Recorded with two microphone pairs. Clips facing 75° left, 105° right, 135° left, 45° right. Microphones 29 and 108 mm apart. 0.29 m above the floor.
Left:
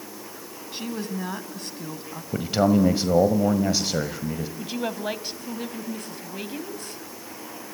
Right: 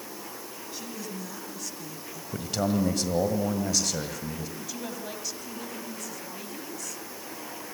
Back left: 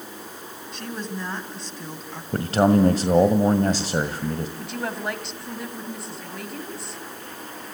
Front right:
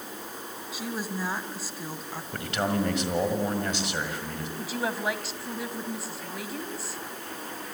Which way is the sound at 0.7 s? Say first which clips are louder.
Left 8 dB, back left 1 dB; 40° left.